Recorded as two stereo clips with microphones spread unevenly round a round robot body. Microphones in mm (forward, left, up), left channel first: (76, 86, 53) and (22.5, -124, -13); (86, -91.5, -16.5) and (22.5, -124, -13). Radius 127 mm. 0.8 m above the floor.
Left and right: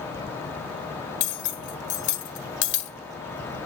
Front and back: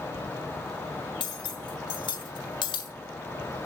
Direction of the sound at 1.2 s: 45° left.